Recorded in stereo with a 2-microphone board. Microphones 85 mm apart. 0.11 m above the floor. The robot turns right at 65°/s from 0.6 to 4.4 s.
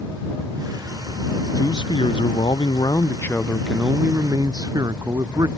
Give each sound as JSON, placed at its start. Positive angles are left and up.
{"t": 1.6, "sound": "a man speaking", "azimuth_deg": 40}